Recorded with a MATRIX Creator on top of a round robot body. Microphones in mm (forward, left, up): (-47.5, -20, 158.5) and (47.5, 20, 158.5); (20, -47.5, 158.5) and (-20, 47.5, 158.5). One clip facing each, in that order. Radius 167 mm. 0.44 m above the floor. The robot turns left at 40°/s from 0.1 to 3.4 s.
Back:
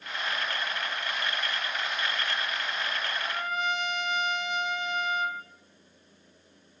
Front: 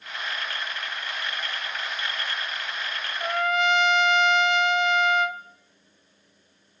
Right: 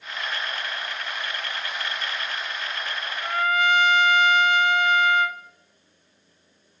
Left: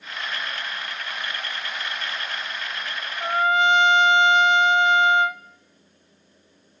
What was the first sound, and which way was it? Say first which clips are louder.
A trumpet: front 11 dB, left 3 dB; 50° left.